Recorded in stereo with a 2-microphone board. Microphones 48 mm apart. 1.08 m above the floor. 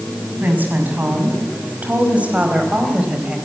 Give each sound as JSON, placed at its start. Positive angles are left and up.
{"t": 0.4, "sound": "a woman speaking", "side_deg": -40, "distance_m": 6.5}